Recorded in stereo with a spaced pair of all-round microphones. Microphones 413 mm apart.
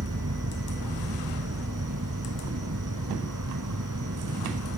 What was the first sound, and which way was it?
An insect, 45° right (ahead or behind).